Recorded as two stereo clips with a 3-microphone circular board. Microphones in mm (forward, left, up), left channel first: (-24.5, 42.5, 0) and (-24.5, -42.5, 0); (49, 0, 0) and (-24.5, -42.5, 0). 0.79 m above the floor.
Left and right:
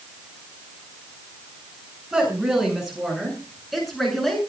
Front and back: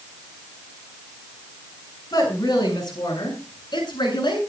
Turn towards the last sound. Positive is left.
turn(degrees=0)